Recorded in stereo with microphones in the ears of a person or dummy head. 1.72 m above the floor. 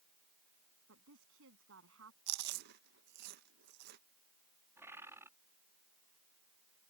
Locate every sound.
0.9 s a woman speaking: 70° right (ahead or behind)
2.3 s chewing: 55° right (ahead or behind)
4.8 s a bird: 10° right (ahead or behind)